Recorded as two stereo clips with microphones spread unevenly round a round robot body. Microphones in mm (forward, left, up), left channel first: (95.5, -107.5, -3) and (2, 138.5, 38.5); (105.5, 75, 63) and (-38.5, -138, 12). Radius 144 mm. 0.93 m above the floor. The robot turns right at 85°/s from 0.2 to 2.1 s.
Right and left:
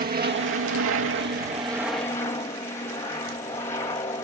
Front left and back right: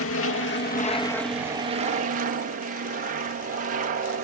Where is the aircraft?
65° left; by 4.2 s 135° right.